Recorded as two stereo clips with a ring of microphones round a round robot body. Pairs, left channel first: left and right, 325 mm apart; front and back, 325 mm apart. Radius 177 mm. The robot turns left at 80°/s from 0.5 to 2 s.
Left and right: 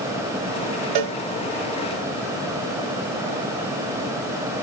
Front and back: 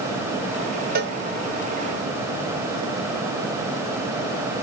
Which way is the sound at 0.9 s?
115° right.